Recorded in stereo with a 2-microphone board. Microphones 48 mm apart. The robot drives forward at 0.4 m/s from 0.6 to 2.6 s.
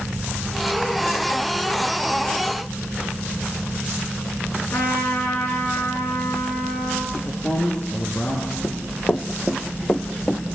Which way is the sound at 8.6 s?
45° left (ahead or behind).